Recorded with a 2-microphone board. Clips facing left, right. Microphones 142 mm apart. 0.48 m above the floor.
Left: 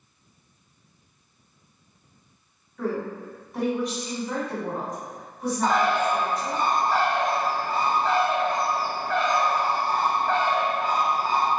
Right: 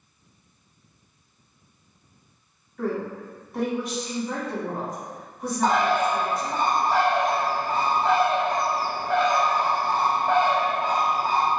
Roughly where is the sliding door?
No sliding door in this recording.